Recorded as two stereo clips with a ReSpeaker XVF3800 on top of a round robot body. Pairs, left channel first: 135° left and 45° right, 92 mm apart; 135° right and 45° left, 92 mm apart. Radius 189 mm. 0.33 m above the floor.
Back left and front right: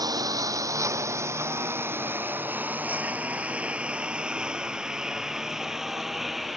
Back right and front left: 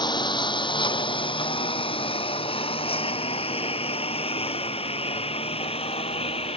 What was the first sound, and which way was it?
A lawn mower, 95° right.